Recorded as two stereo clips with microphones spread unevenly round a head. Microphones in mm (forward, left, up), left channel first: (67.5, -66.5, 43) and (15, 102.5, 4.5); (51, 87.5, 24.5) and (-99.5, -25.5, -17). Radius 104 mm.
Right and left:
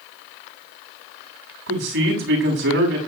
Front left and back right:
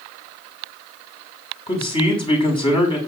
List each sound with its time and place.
1.7 s a man speaking: 100° left, 7.5 m